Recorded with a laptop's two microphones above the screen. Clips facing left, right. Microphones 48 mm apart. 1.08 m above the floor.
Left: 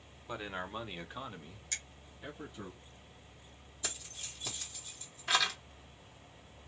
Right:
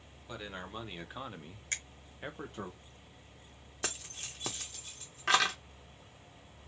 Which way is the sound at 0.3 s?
20° left (ahead or behind).